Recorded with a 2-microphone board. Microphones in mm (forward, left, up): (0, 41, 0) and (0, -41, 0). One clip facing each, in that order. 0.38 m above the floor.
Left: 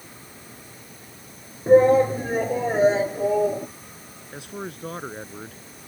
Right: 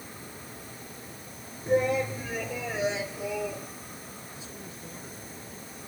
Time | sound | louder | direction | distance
1.7 | a shout | left 11 dB | 40° left (ahead or behind) | ?
4.3 | a man speaking | left 8 dB | 70° left (ahead or behind) | ?